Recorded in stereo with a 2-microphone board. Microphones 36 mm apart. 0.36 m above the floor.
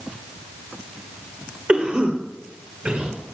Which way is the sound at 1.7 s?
30° right (ahead or behind).